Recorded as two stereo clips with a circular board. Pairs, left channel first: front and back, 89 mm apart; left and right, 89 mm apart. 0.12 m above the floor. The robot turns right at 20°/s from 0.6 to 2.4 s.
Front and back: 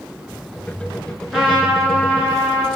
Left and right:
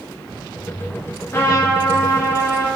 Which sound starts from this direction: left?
A trumpet, at 1.3 s.